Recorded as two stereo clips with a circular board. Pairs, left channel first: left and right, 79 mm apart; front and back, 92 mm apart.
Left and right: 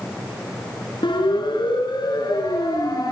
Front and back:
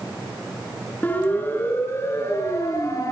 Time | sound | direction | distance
1.0 | a siren | 70° left | 6.5 m